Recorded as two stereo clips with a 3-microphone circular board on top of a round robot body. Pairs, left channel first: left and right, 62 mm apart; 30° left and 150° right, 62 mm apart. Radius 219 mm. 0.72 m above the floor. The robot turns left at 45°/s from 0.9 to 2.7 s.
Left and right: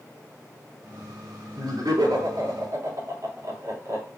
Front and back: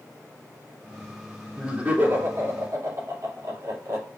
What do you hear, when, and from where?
1.6 s laughter: 65° right, 2.5 m; by 4.0 s 115° right, 2.5 m